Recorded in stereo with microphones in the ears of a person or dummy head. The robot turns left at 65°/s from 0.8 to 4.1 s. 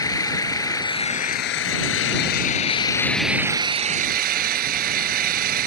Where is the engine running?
160° left; by 5.7 s 55° right.